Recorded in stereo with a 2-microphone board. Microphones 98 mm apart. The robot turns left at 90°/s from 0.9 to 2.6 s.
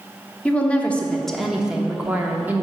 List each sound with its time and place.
0.5 s a woman speaking: 15° left (ahead or behind), 0.6 m; by 2.6 s 20° right (ahead or behind), 0.6 m